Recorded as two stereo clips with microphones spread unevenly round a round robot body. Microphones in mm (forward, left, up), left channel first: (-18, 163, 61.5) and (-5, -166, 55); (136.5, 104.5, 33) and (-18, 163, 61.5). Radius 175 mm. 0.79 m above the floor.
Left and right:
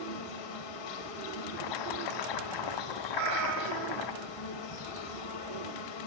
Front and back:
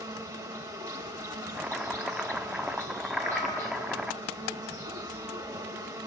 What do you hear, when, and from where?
0.0 s an insect: 90° left, 1.8 m
1.6 s chopping: 75° left, 1.0 m
3.1 s a cat meowing: 95° right, 1.8 m